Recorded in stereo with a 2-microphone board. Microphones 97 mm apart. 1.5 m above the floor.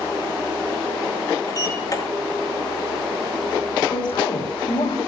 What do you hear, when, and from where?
1.5 s a sliding door: 40° left (ahead or behind), 4.5 m
3.9 s a woman speaking: 55° left (ahead or behind), 4.5 m